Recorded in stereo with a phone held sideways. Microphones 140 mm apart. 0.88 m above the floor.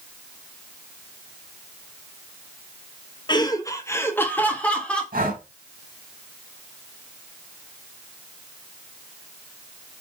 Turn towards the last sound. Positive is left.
turn(degrees=-85)